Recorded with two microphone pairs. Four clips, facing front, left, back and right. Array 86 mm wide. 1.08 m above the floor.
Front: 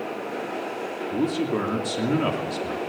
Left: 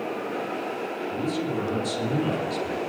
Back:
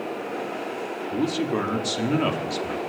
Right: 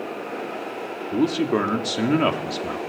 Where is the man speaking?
90° right, 2.5 m.